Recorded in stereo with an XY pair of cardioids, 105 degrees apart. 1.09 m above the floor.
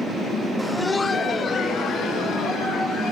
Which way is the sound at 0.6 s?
10° right.